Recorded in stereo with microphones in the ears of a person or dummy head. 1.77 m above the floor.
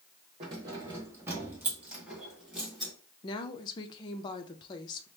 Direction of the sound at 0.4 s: 20° right (ahead or behind).